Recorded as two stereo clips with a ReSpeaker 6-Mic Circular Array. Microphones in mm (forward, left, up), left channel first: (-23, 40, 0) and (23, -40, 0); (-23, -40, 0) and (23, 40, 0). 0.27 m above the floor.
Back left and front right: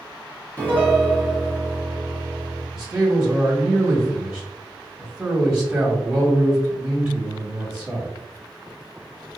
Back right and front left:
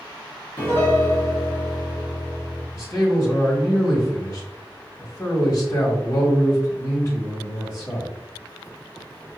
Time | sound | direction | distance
0.6 | a piano | 175° right | 1.5 m
2.7 | a man speaking | 140° right | 1.7 m